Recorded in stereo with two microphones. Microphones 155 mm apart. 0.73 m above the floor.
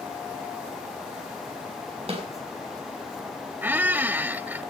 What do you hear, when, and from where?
2.1 s a snare drum: 45° right (ahead or behind), 3.5 m
3.6 s a squeak: 15° right (ahead or behind), 0.5 m